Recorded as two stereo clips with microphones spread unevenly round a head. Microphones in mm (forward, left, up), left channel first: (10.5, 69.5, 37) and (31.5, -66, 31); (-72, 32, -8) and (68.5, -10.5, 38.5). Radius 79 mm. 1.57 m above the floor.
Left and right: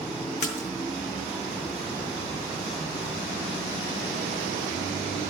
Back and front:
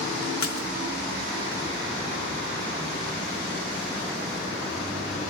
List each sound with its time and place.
0.4 s a splash: 140° left, 4 m